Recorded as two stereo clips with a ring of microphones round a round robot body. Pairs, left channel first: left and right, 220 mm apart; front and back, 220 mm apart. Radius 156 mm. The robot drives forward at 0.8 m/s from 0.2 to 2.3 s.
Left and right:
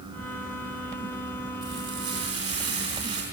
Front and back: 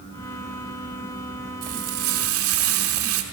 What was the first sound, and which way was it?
Frying, 165° right.